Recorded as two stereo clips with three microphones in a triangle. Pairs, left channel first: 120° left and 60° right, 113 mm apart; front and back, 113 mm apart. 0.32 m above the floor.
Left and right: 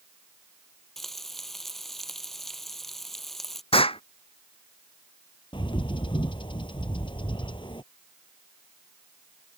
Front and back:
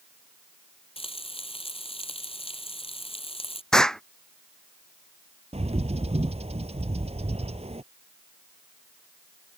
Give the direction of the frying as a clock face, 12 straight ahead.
11 o'clock.